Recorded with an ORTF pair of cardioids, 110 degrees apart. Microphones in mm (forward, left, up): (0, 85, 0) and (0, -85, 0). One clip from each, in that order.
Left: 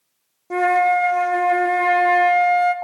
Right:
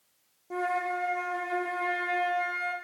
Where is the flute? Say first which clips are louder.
Left 13 dB; 45° left, 0.6 m.